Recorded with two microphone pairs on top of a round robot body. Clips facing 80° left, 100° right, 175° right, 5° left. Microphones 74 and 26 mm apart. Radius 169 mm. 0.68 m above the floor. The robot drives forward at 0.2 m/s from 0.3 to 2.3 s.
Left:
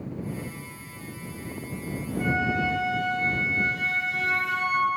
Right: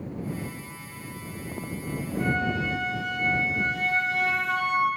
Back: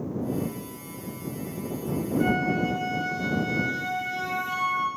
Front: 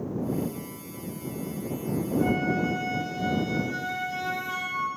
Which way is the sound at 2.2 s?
155° left.